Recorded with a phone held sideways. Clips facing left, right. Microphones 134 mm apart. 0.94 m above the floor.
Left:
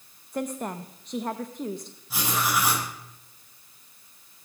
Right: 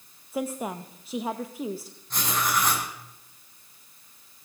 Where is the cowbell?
I don't hear a cowbell.